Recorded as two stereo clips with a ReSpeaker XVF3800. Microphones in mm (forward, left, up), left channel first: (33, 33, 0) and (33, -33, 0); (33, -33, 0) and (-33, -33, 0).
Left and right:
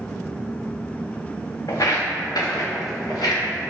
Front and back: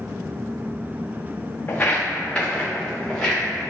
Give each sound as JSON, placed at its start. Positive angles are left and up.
{"t": 1.7, "sound": "footsteps", "azimuth_deg": 65, "distance_m": 0.6}